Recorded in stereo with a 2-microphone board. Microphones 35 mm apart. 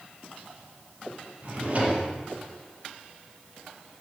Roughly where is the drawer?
Right.